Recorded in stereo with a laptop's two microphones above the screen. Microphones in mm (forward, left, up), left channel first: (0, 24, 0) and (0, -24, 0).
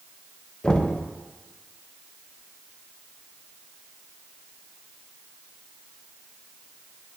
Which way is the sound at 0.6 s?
20° left (ahead or behind).